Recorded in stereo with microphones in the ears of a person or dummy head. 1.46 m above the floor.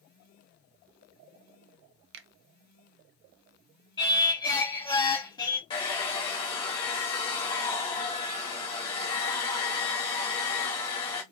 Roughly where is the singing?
Left.